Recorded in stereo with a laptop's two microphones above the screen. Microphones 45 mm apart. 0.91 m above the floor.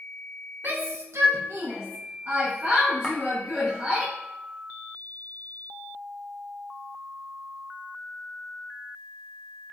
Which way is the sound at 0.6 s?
45° right (ahead or behind).